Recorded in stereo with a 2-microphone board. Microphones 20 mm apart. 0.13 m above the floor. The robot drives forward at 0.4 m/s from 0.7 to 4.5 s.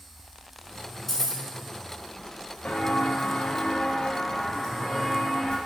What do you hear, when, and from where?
1.1 s keys jangling: 10° left (ahead or behind), 1.0 m
2.6 s footsteps: 55° left (ahead or behind), 1.1 m; by 5.6 s 15° left (ahead or behind), 2.0 m